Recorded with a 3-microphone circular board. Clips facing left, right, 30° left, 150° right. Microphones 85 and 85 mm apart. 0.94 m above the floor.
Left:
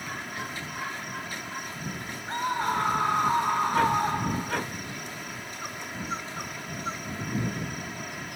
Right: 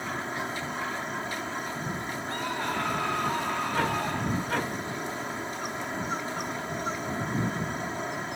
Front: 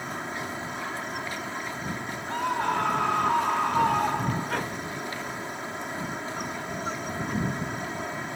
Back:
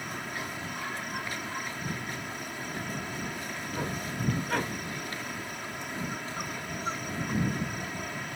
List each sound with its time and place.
0.0 s an insect: 35° right
2.3 s a scream: 25° left